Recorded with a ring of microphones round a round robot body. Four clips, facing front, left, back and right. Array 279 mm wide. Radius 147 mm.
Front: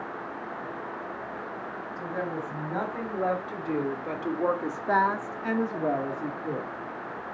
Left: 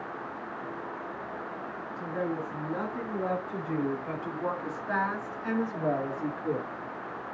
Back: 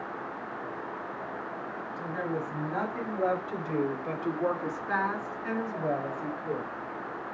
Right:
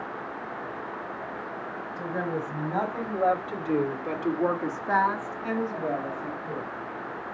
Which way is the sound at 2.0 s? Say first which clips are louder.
Right 2 dB, front 1 dB; 80° right.